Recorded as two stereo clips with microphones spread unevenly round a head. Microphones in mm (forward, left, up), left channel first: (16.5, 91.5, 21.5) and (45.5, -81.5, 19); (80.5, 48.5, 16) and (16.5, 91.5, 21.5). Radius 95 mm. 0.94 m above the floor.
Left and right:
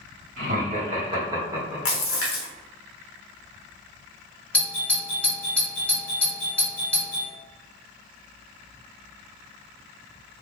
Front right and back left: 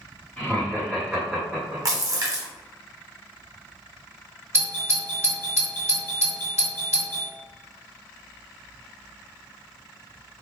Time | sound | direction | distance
0.4 | laughter | 100° right | 1.2 m
1.9 | a splash | 105° left | 0.8 m
4.5 | a doorbell | straight behind | 1.5 m